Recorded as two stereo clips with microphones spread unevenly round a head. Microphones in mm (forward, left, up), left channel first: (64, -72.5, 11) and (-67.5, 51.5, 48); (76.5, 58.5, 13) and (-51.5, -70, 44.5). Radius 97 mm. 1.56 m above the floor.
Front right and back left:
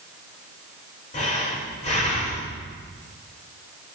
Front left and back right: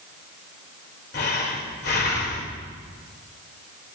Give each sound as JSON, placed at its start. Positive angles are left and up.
{"t": 1.1, "sound": "breathing", "azimuth_deg": 15, "distance_m": 2.0}